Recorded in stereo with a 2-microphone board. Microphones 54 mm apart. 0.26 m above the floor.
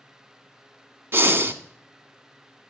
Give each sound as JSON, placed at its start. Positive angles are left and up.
{"t": 1.1, "sound": "breathing", "side_deg": -50, "distance_m": 0.6}